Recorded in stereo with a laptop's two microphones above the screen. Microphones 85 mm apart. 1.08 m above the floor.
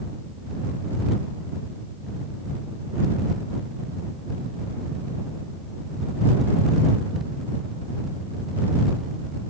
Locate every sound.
Only background noise.